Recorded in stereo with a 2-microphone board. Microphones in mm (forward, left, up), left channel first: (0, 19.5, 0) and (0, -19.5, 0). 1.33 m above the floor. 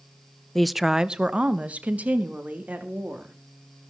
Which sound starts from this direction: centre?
A woman speaking, at 0.6 s.